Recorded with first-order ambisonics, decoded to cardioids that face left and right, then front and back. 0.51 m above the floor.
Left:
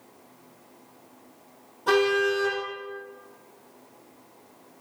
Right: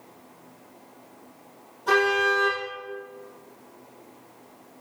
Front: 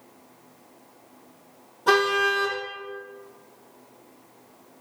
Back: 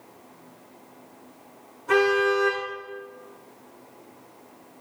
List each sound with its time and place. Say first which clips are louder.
1.9 s a car horn: right 1 dB, even; 15° left, 7.5 m